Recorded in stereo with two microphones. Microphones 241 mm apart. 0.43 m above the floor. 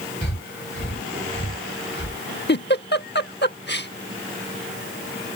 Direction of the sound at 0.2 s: 50° left (ahead or behind).